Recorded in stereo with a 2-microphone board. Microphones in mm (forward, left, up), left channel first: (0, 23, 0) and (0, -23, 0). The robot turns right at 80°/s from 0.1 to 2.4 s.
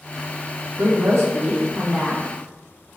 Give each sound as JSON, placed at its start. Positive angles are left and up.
{"t": 0.8, "sound": "a woman speaking", "azimuth_deg": -115, "distance_m": 1.2}